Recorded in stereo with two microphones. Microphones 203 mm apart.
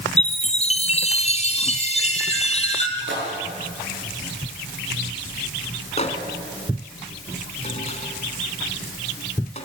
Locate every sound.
0.2 s a chime: 35° left (ahead or behind), 2 m
3.0 s a splash: 70° right (ahead or behind), 7.5 m
6.0 s a microwave: 35° left (ahead or behind), 3 m